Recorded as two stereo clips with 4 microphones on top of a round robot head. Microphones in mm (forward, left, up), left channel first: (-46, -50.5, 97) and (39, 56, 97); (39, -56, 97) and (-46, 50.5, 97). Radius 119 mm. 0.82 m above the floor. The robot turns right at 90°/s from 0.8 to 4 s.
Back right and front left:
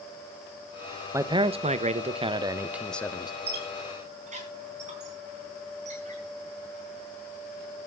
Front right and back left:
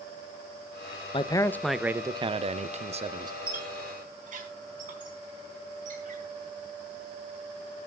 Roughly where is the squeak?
Ahead left.